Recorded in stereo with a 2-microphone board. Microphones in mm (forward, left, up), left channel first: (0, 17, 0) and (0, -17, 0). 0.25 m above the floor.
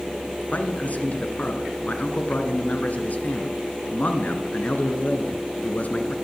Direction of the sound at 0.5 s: 50° left (ahead or behind).